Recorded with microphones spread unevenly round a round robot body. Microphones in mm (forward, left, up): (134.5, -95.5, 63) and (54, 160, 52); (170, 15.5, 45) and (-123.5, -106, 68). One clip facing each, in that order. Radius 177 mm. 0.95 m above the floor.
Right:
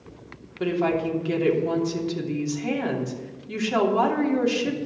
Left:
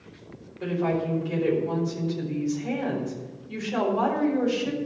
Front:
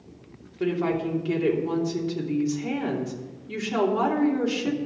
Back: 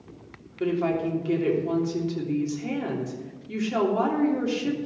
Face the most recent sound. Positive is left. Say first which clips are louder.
# right 3 dB, even
turn(degrees=-65)